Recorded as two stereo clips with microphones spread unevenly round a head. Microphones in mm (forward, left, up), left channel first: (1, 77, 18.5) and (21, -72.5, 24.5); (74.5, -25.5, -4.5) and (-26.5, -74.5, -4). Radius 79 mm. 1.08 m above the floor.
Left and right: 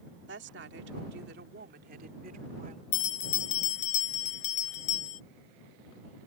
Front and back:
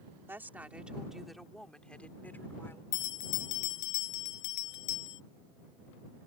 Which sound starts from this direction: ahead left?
A bell, at 2.9 s.